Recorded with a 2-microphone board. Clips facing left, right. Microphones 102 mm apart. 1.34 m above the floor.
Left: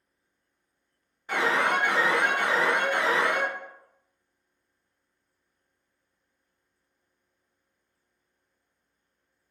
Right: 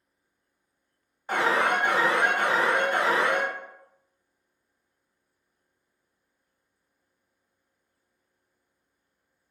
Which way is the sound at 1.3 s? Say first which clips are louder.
Right 1 dB; 40° right (ahead or behind).